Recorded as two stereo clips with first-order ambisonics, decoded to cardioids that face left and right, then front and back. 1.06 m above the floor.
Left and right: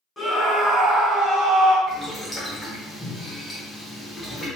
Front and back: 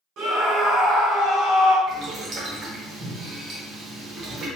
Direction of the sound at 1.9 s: 165° left.